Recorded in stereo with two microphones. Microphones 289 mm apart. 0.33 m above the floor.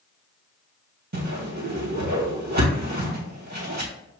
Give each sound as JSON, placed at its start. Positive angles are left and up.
{"t": 1.1, "sound": "a whoosh", "side_deg": -70, "distance_m": 1.5}